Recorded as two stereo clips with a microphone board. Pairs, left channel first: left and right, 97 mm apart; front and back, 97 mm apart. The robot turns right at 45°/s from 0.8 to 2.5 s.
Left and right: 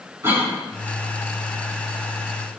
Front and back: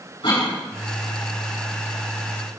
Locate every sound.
0.2 s a cough: 25° right, 2.5 m